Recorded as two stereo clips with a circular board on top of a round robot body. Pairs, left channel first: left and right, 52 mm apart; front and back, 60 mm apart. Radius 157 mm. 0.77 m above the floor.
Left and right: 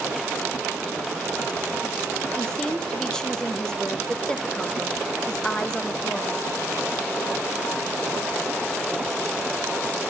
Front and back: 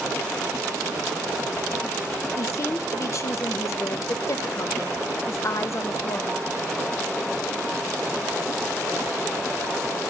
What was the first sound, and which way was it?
A woman speaking, 15° left.